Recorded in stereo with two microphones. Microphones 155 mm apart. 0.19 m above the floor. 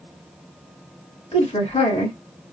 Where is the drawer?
No drawer in this recording.